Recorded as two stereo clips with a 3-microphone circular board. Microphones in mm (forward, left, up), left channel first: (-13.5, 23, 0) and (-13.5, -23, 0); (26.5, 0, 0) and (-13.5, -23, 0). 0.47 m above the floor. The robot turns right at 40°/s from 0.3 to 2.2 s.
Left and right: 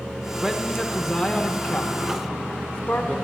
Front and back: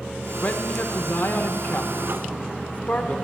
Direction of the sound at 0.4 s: 15° right.